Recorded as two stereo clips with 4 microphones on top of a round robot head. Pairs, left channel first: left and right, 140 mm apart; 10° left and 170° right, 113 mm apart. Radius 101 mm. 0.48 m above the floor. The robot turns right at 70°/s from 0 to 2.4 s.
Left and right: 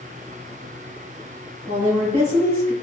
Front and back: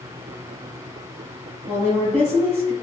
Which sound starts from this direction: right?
A woman speaking, at 1.7 s.